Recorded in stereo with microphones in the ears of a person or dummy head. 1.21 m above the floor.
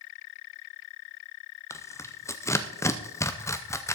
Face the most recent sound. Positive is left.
turn(degrees=10)  # may be behind; listen again after turning